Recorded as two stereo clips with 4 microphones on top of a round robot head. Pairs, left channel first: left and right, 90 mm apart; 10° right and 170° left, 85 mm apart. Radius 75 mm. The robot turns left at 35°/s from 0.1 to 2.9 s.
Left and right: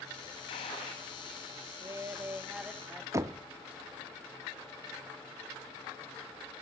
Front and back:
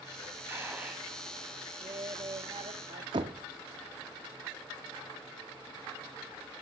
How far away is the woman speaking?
About 1.5 m.